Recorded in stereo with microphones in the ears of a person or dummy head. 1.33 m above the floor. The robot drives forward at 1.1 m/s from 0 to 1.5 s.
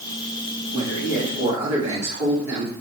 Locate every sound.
0.7 s a man speaking: 25° right (ahead or behind), 2.5 m; by 2.7 s 20° right (ahead or behind), 3 m